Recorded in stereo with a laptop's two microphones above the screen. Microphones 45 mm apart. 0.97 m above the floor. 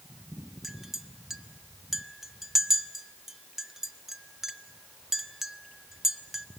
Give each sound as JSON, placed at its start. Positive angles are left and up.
{"t": 0.6, "sound": "a clink", "side_deg": -10, "distance_m": 0.6}